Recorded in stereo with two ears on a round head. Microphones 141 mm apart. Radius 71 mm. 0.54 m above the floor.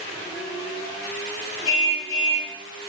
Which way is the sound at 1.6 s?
50° left (ahead or behind).